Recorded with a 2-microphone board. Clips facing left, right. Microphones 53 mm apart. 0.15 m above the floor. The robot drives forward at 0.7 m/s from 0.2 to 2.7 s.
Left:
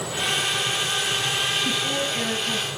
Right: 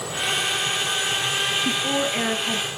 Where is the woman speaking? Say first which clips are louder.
Right 2 dB; 30° right (ahead or behind), 1.7 m.